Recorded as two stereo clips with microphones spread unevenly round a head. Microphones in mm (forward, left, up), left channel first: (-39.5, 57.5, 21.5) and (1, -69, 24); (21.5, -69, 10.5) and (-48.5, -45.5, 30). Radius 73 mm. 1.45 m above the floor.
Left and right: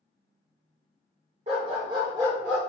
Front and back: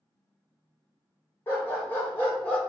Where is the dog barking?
80° right, 1.4 m; by 2.6 s 120° right, 1.0 m.